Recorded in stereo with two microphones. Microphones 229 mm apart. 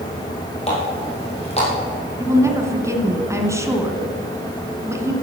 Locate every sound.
0.7 s a running tap: 25° left (ahead or behind), 4.5 m
2.2 s a woman speaking: 10° right (ahead or behind), 1.5 m